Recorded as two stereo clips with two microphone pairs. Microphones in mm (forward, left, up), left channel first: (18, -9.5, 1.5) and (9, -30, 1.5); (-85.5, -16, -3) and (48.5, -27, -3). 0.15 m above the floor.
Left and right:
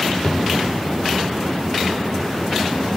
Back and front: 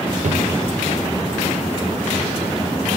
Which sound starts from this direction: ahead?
A drawer, at 0.2 s.